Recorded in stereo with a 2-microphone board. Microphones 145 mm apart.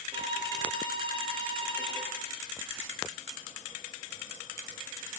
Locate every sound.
0.1 s a violin: 35° right (ahead or behind), 6.5 m